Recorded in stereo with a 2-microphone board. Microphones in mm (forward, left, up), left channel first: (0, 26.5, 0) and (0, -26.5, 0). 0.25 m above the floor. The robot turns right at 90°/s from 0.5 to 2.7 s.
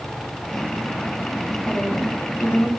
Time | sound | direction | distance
1.7 | a woman speaking | straight ahead | 2 m